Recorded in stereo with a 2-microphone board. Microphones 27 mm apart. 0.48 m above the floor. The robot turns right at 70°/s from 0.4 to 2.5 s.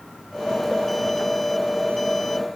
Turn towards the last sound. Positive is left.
No sound to turn to.